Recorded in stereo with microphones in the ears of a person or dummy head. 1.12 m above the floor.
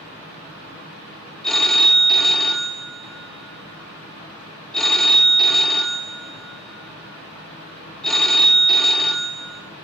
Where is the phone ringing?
5° left (ahead or behind), 0.7 m.